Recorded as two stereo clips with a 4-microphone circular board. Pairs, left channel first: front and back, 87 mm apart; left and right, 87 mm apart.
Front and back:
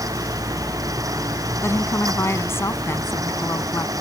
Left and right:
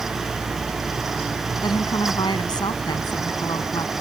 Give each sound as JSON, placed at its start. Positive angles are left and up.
{"t": 1.6, "sound": "a woman speaking", "azimuth_deg": 60}